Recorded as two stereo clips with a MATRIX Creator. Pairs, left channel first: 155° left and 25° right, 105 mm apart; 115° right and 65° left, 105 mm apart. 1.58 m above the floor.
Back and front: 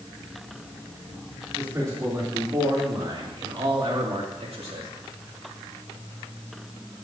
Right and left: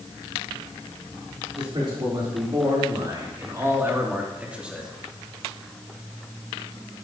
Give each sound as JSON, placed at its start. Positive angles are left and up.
{"t": 1.6, "sound": "a man speaking", "azimuth_deg": 35, "distance_m": 4.0}